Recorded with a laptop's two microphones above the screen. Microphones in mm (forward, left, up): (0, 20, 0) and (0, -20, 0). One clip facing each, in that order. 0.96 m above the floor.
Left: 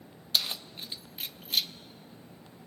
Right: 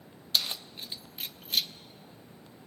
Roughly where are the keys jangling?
Centre.